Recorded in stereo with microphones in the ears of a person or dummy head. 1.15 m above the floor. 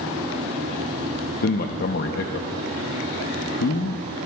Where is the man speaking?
50° left (ahead or behind), 0.7 m.